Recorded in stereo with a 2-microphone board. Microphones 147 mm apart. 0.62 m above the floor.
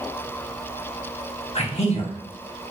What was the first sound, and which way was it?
A man speaking, 45° left (ahead or behind).